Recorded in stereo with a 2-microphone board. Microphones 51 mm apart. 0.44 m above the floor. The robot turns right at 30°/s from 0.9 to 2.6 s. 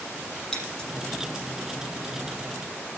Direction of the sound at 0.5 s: 10° left (ahead or behind).